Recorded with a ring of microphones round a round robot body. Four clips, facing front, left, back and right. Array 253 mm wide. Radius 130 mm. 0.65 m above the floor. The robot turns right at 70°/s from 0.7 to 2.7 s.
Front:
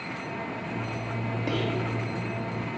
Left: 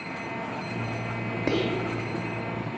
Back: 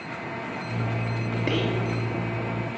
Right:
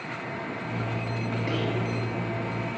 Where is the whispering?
115° left, 0.6 m; by 1.9 s 140° left, 0.6 m.